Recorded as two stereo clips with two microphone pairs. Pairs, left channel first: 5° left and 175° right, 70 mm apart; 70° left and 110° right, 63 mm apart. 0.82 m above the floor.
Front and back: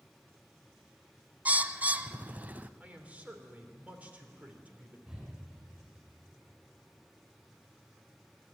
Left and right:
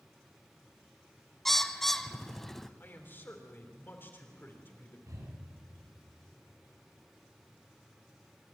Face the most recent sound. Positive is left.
turn(degrees=-105)